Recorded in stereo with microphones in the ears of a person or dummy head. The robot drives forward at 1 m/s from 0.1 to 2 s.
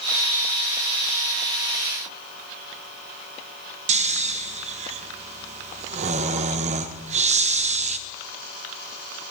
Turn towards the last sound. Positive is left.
turn(degrees=-35)  # may be behind; listen again after turning